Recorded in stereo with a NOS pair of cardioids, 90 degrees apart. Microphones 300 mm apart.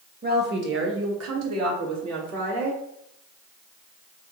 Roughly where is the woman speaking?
Ahead right.